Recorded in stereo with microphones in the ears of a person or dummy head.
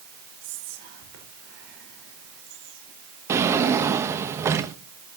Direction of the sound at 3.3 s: 20° right (ahead or behind).